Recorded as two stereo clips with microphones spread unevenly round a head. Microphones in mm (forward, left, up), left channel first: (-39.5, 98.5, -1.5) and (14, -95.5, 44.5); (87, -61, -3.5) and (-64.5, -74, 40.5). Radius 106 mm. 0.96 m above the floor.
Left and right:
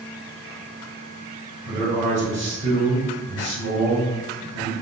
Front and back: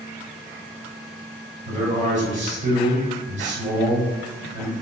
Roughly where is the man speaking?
Behind right.